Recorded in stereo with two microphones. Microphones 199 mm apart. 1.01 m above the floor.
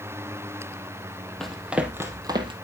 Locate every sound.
1.4 s running footsteps: centre (ahead or behind), 1.5 m; by 2.5 s 25° right (ahead or behind), 1.4 m